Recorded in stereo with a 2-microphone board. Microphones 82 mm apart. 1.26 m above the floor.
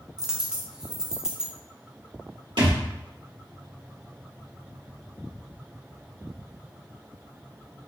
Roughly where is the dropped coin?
Centre.